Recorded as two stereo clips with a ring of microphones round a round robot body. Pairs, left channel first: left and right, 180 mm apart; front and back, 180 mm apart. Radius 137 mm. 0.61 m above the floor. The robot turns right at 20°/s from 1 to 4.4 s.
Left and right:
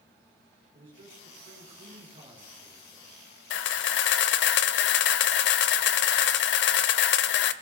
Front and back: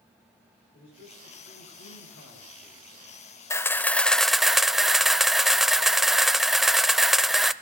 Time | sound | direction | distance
0.7 | a man speaking | 45° right | 9.5 m
3.5 | a camera shutter | 75° left | 0.5 m